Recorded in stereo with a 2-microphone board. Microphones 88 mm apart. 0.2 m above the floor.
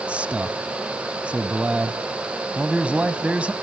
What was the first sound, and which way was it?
A man speaking, 15° right (ahead or behind).